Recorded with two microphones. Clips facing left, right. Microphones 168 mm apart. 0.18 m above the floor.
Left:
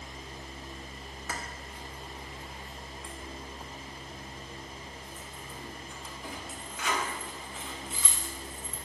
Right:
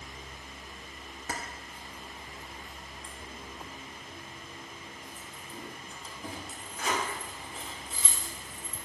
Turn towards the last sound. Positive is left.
turn(degrees=-40)  # may be behind; listen again after turning